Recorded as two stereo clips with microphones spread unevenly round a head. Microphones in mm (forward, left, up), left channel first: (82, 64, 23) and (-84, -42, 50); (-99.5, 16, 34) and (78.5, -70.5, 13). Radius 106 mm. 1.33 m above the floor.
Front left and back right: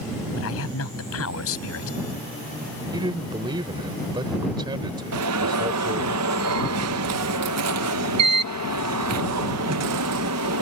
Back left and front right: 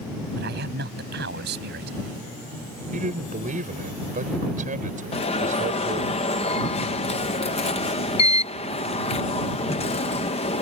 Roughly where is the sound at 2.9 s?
Right.